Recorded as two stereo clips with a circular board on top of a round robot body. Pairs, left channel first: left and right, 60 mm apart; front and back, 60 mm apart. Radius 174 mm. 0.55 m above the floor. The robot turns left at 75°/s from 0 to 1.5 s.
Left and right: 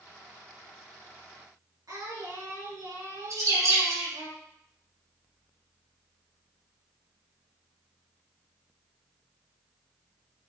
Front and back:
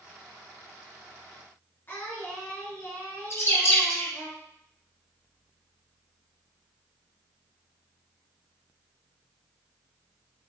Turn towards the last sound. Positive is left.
turn(degrees=-50)